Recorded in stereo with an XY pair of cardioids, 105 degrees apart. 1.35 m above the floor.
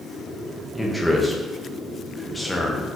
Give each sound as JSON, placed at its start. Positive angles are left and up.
{"t": 0.8, "sound": "a man speaking", "azimuth_deg": 5, "distance_m": 1.1}